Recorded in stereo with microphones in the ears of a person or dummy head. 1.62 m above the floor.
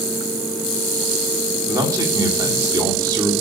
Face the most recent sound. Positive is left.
turn(degrees=-20)  # may be behind; listen again after turning